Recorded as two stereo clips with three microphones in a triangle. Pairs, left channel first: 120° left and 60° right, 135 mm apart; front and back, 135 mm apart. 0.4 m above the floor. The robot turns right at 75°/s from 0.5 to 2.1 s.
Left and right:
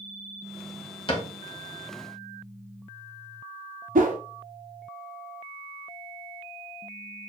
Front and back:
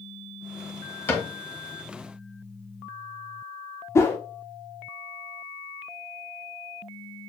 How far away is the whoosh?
About 0.9 m.